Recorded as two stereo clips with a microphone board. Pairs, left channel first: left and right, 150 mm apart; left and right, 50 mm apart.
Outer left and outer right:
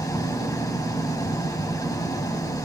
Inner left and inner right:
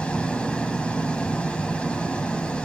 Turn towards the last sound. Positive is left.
turn(degrees=25)  # may be behind; listen again after turning